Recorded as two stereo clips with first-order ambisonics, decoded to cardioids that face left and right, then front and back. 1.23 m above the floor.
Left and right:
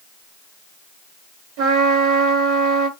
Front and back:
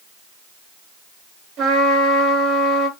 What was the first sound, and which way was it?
A trumpet, 120° right.